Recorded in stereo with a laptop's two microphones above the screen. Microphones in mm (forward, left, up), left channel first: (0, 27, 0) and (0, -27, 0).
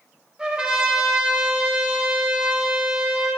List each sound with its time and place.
0.4 s a trumpet: 15° right (ahead or behind), 3 m